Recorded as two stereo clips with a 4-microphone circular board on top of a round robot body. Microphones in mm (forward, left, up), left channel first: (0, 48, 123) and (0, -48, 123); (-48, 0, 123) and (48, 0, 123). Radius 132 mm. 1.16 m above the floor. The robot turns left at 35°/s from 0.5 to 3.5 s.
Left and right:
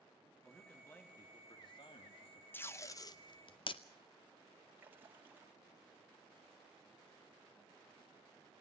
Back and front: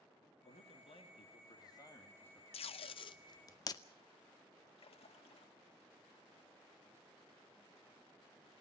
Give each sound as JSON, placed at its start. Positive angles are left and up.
{"t": 0.4, "sound": "a man speaking", "azimuth_deg": 175, "distance_m": 3.0}
{"t": 2.5, "sound": "tape being pulled", "azimuth_deg": 160, "distance_m": 0.7}
{"t": 4.8, "sound": "a splash", "azimuth_deg": -160, "distance_m": 1.8}